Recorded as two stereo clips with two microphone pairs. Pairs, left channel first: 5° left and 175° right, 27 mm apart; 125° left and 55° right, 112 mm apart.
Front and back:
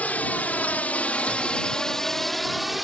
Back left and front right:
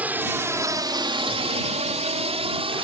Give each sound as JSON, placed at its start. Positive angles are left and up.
{"t": 0.0, "sound": "a drone", "azimuth_deg": 20}